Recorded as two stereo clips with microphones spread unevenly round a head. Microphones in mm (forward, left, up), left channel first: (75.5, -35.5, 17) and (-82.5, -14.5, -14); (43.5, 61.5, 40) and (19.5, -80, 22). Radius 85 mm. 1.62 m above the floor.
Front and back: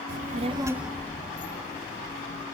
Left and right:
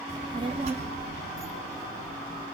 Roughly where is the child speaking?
Behind.